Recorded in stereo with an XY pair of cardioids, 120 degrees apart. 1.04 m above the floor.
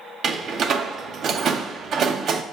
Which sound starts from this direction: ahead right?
A door slam, at 0.2 s.